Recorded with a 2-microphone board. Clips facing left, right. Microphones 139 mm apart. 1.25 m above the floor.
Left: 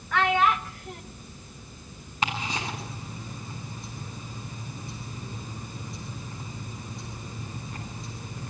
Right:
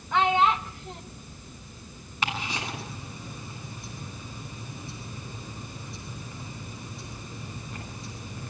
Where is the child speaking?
20° right (ahead or behind), 1.3 m.